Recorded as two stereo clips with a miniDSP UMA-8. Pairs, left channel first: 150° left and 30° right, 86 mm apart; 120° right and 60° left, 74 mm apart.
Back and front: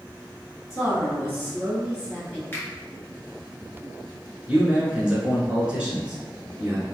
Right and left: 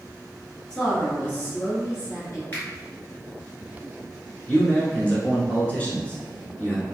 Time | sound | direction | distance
0.7 | a woman speaking | 170° left | 1.7 m
2.5 | a finger snap | 165° right | 1.7 m
4.5 | a man speaking | 85° right | 1.3 m